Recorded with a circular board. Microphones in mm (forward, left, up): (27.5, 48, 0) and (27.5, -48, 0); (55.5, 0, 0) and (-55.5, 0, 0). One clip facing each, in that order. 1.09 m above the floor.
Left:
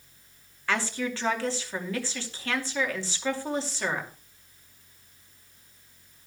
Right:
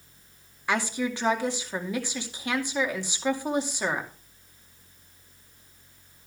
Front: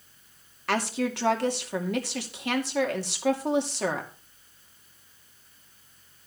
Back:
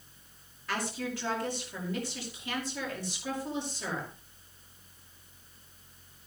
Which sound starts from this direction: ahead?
A woman speaking, at 0.7 s.